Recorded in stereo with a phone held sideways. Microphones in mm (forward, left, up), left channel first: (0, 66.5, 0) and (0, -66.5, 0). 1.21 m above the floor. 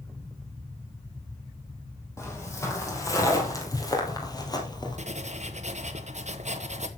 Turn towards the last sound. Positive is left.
turn(degrees=-60)  # may be behind; listen again after turning